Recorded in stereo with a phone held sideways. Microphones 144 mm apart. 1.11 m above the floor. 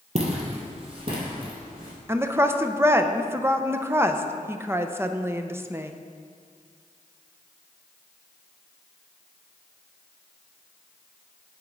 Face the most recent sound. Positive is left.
turn(degrees=-15)  # may be behind; listen again after turning